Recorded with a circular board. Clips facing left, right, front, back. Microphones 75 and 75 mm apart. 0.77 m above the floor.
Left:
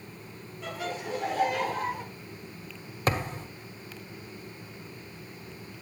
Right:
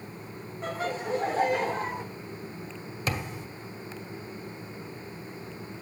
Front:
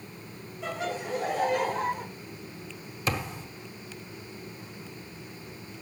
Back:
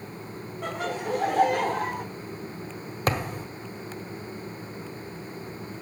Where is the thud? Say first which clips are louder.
Left 4 dB, back 4 dB; 140° left, 1.7 m.